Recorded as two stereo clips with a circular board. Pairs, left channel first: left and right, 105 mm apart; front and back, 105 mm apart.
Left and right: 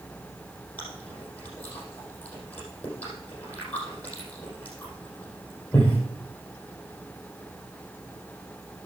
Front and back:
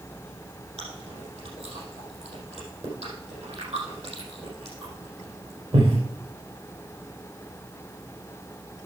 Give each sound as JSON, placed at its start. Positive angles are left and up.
{"t": 0.8, "sound": "chewing", "azimuth_deg": 165, "distance_m": 4.5}